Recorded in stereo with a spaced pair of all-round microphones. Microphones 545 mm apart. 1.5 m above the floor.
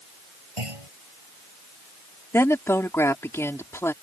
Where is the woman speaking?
5° left (ahead or behind).